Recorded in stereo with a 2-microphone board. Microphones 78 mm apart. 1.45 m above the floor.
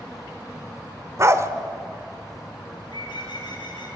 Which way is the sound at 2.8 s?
80° left.